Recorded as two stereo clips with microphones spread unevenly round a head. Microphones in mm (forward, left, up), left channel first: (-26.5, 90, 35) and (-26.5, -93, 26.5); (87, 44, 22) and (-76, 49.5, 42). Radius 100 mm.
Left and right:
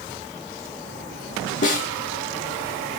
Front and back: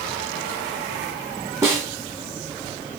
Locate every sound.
1.6 s a snare drum: 115° left, 1.3 m